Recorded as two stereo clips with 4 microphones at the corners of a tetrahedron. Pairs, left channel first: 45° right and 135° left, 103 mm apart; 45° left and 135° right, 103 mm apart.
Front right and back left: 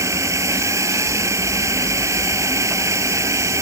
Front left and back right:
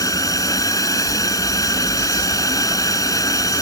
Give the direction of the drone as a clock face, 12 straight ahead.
9 o'clock.